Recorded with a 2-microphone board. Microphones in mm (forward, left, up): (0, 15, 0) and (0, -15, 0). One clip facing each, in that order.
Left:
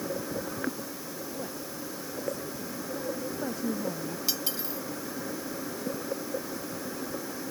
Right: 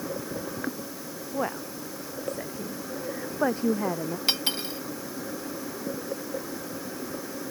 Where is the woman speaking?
60° right (ahead or behind); by 4.2 s 55° right (ahead or behind).